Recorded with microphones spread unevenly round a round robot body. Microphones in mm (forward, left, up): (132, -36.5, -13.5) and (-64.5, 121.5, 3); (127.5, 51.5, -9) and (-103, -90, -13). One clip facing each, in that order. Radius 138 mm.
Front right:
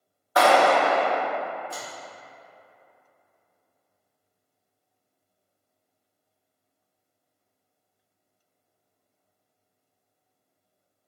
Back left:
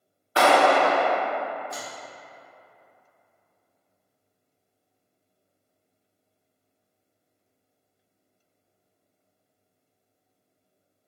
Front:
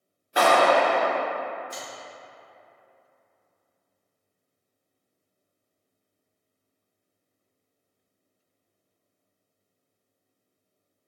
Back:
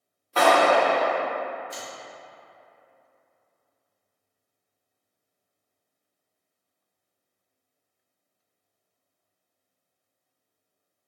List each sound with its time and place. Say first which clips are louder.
0.4 s a clap: even, even; 100° left, 0.9 m
1.7 s a finger snap: back left 1 dB, even; 75° right, 0.8 m